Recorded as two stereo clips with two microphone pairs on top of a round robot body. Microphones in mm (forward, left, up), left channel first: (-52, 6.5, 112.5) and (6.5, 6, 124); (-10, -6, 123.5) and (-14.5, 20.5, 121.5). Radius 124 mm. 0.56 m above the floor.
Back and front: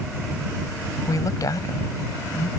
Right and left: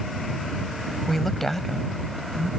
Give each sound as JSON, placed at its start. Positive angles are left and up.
{"t": 1.1, "sound": "a woman speaking", "azimuth_deg": -165}